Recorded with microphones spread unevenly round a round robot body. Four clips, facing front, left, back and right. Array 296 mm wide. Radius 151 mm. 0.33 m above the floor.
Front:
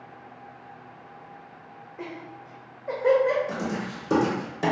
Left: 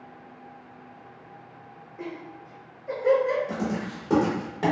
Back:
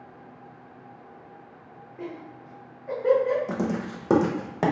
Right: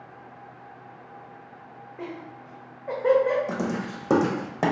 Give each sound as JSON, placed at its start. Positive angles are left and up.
{"t": 2.0, "sound": "laughter", "azimuth_deg": -85, "distance_m": 1.2}
{"t": 3.5, "sound": "writing", "azimuth_deg": -130, "distance_m": 0.6}